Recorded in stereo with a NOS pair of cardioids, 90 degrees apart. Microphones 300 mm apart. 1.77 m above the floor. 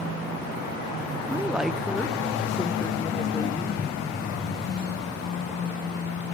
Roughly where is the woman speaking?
Ahead.